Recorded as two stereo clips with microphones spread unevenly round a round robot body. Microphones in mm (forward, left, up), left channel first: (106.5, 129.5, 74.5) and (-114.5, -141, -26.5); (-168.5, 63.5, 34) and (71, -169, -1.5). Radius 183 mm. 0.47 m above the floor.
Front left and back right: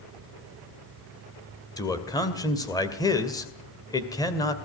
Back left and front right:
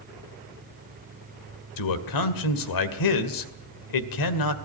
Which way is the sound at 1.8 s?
140° left.